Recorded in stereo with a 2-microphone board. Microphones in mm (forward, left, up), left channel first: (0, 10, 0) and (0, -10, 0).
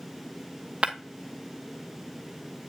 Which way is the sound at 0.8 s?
45° right (ahead or behind).